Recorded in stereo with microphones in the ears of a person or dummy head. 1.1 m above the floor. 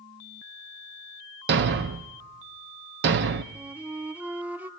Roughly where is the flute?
Centre.